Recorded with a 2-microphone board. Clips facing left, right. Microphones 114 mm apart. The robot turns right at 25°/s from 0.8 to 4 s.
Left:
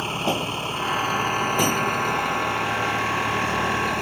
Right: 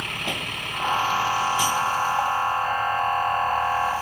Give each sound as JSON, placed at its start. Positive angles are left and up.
{"t": 0.0, "sound": "a vehicle", "azimuth_deg": 30}